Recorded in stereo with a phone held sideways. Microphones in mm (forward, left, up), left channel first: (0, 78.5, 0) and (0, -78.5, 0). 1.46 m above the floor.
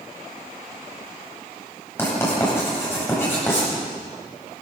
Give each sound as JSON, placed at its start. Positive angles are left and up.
{"t": 2.0, "sound": "writing", "side_deg": 15, "distance_m": 9.0}